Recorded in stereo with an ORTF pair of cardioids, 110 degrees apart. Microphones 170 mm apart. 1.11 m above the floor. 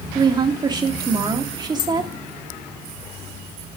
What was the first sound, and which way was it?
A woman speaking, 25° right.